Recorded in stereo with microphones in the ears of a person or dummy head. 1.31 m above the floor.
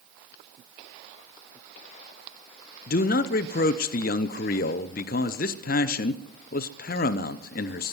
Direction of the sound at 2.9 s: 45° left (ahead or behind).